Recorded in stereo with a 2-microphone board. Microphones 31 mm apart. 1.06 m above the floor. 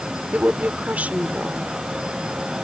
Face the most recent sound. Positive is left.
turn(degrees=-55)  # may be behind; listen again after turning